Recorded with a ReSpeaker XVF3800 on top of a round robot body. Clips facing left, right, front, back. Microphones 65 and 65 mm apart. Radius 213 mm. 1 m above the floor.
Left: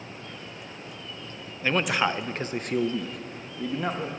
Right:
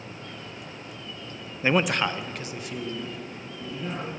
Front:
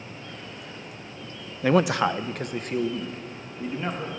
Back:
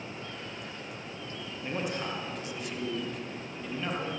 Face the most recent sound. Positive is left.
turn(degrees=70)